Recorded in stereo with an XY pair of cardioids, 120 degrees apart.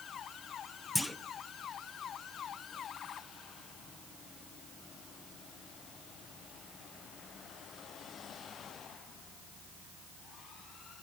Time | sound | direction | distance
0.9 | a clunk | 10° left | 1.0 m